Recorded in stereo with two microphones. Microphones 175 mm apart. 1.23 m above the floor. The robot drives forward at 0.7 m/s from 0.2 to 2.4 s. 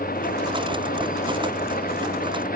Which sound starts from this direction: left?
An engine running, at 0.0 s.